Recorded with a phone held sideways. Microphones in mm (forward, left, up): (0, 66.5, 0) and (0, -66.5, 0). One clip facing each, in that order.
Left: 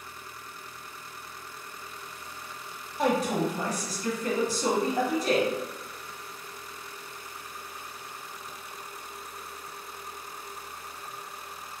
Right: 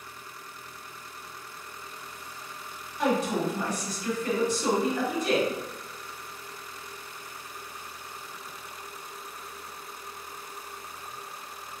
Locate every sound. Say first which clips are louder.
3.0 s a woman speaking: even; 35° left (ahead or behind), 0.9 m